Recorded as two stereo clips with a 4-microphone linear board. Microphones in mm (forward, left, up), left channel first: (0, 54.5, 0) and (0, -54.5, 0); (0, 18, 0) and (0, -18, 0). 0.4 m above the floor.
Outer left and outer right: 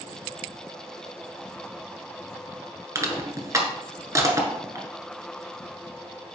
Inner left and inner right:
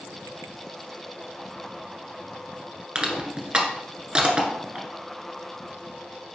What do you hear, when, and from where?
3.0 s crushing: 30° right (ahead or behind), 1.4 m